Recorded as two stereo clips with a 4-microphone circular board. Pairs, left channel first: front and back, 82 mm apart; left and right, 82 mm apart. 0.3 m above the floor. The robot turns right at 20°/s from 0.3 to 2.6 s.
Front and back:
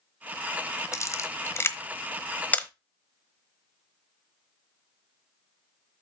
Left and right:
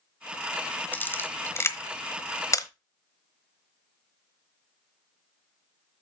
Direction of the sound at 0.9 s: 30° left.